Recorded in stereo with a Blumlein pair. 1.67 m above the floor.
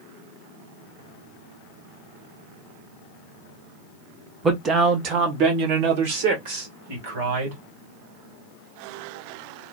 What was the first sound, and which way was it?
A man speaking, 20° right.